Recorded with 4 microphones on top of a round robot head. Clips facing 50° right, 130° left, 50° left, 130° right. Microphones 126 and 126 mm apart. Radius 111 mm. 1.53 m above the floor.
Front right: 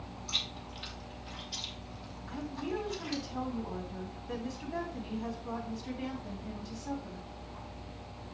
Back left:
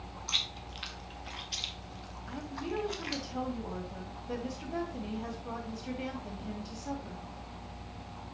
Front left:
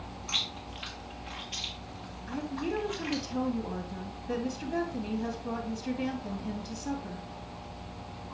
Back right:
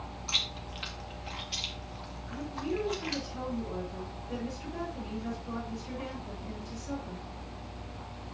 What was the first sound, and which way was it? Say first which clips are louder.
Chewing: even, front left 1 dB; 170° left.